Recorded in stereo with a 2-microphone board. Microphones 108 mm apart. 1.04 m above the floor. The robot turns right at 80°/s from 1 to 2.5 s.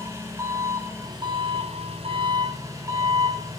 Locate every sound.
0.0 s an engine running: 155° right, 6 m; by 3.6 s 35° right, 6 m